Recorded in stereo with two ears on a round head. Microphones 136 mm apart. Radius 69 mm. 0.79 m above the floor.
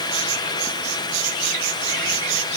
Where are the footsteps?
I don't hear footsteps.